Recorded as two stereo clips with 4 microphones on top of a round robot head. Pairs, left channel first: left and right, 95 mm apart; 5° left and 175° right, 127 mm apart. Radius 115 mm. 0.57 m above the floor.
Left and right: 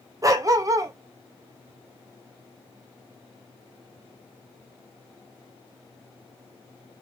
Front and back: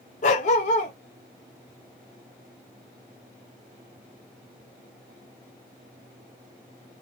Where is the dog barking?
35° right, 0.7 m.